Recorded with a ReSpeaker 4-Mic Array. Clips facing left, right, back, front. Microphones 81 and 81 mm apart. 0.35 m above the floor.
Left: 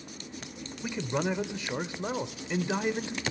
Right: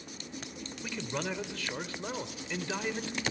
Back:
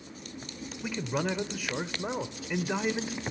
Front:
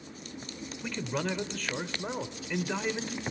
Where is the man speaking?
115° left, 0.8 m.